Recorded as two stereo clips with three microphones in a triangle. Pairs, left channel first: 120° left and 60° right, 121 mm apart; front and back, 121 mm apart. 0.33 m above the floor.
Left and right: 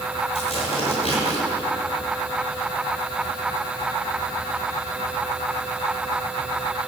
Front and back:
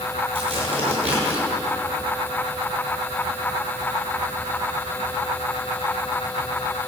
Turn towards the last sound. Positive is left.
turn(degrees=155)